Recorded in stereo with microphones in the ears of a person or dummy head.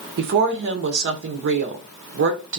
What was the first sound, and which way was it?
A woman speaking, 55° right (ahead or behind).